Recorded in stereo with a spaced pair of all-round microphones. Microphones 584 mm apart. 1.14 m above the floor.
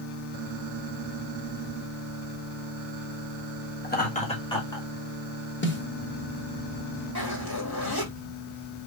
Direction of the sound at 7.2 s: 40° left (ahead or behind).